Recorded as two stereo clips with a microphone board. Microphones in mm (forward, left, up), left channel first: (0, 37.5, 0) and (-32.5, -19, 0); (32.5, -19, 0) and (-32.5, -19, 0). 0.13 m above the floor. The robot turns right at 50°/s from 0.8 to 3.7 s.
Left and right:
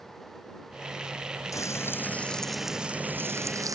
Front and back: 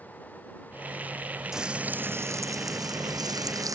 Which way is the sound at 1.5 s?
100° left.